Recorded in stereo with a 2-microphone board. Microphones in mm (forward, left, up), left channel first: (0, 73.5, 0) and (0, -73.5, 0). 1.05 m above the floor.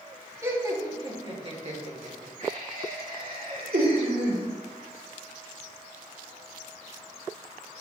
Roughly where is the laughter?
Right.